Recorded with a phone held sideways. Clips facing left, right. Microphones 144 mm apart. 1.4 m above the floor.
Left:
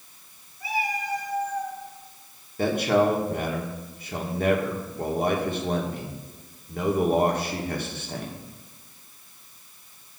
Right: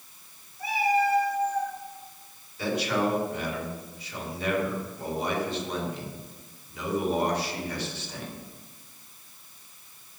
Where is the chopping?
I don't hear chopping.